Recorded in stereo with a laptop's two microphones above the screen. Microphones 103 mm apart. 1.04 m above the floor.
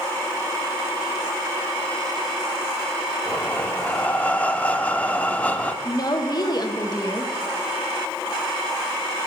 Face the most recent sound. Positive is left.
turn(degrees=40)  # may be behind; listen again after turning